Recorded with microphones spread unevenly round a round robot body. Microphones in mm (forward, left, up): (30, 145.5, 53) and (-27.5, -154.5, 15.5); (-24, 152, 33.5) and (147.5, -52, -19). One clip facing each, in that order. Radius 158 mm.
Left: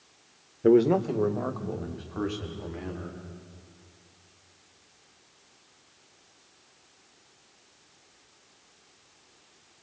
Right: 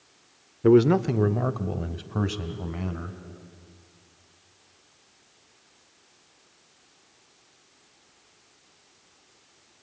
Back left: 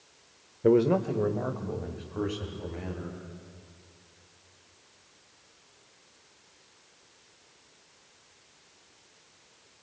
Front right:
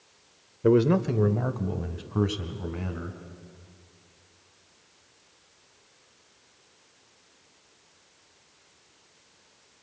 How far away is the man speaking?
About 0.8 m.